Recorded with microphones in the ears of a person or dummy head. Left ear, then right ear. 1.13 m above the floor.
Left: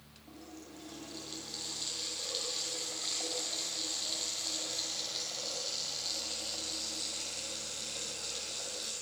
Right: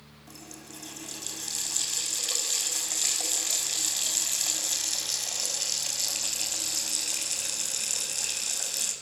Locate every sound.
0.3 s a running tap: 65° right (ahead or behind), 6 m